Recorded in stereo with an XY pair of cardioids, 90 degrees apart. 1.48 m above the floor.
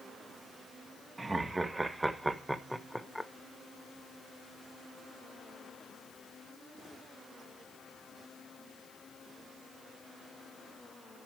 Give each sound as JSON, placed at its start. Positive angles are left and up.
{"t": 1.2, "sound": "laughter", "azimuth_deg": -25, "distance_m": 2.0}